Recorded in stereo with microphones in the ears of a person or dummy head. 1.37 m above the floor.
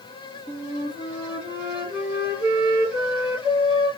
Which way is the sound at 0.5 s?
20° right (ahead or behind).